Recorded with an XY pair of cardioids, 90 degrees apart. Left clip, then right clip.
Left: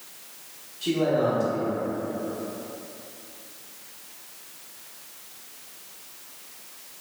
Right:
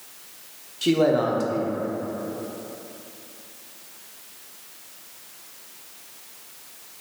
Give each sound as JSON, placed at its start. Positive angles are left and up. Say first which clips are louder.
{"t": 0.8, "sound": "a man speaking", "louder": "right 3 dB", "azimuth_deg": -70, "distance_m": 0.5}